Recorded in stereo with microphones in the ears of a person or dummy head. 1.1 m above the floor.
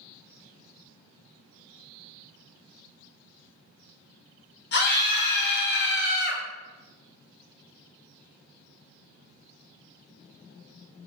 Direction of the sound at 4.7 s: 55° left (ahead or behind).